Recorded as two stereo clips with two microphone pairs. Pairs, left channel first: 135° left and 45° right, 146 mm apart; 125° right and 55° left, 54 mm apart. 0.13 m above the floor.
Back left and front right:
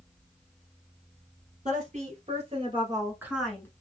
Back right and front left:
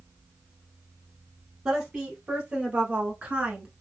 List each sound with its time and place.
1.6 s a woman speaking: 15° right, 3 m; by 3.7 s 100° left, 1.1 m